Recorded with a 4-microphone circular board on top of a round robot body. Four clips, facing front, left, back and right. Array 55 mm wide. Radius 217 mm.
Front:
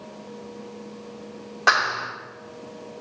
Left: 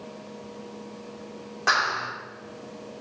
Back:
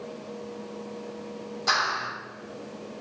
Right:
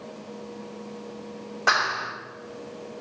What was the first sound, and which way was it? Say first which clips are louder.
A clap: right 1 dB, front 6 dB; straight ahead.